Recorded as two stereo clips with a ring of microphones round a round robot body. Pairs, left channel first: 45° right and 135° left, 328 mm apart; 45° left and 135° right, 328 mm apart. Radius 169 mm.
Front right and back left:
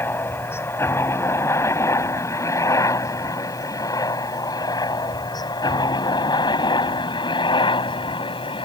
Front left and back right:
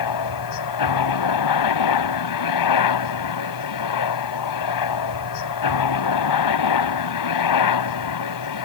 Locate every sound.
0.0 s a helicopter: 40° left; by 8.7 s 30° left